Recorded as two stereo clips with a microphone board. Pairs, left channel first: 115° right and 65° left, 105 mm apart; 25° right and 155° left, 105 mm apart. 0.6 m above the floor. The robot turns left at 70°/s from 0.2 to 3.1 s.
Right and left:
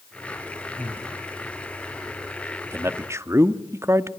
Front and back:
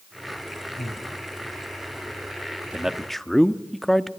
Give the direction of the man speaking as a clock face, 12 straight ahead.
9 o'clock.